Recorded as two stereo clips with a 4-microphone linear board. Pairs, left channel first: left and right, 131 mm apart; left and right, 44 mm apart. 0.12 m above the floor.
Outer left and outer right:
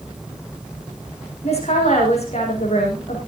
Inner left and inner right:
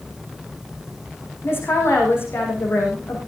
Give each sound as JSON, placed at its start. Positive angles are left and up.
{"t": 1.4, "sound": "a woman speaking", "side_deg": 50, "distance_m": 8.0}